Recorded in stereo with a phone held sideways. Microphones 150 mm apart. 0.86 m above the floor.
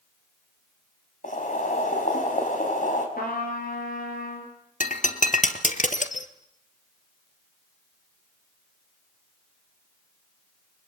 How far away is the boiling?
About 5 m.